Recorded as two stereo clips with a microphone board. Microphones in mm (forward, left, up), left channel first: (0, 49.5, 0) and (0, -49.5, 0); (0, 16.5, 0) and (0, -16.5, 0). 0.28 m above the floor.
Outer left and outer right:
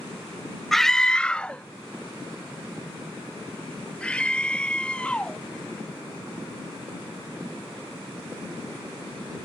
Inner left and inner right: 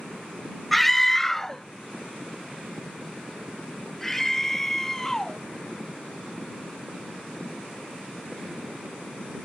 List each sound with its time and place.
0.7 s a scream: centre (ahead or behind); by 5.4 s 10° left (ahead or behind)